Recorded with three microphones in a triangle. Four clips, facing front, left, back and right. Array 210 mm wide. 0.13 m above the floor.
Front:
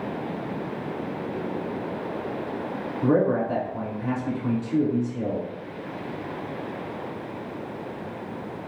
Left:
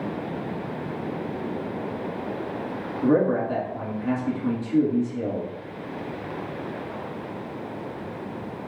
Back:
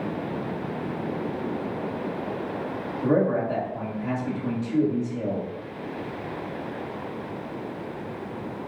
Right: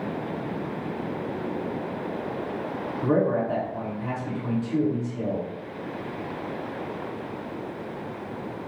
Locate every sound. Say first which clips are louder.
3.0 s a man speaking: left 2 dB, front 1 dB; 40° right, 1.7 m